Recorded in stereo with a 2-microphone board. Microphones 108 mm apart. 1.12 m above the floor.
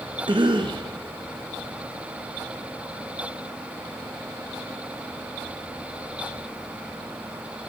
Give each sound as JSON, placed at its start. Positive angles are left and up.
{"t": 0.3, "sound": "a cough", "side_deg": -45, "distance_m": 0.6}